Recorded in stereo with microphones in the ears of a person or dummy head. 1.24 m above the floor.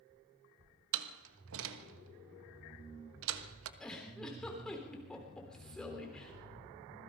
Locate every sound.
0.9 s a door slam: 75° right (ahead or behind), 1.3 m
3.8 s a giggle: 5° left (ahead or behind), 3.5 m